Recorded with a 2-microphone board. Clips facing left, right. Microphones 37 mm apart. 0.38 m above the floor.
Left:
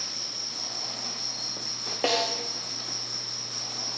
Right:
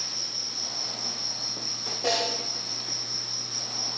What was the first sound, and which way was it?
An insect, 70° left (ahead or behind).